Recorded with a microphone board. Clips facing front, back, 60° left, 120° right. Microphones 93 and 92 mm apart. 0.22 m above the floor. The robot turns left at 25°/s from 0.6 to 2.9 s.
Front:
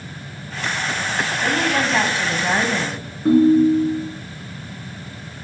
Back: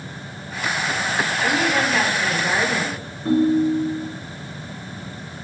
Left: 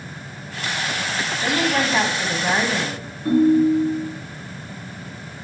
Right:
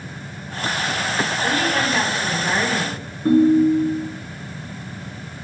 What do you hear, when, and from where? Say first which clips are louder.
1.4 s a woman speaking: front 1 dB, left 2 dB; 55° left, 1.1 m; by 3.0 s 20° left, 1.1 m
3.2 s a ringtone: front 5 dB, right 1 dB; 65° right, 1.7 m